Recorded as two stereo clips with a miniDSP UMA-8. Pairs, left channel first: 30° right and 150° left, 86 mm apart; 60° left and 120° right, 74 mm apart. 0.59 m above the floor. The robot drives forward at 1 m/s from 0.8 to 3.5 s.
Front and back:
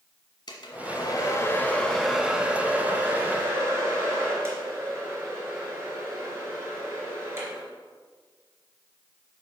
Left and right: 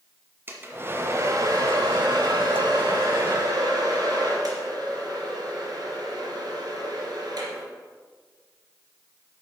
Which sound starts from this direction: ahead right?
A hair dryer, at 0.5 s.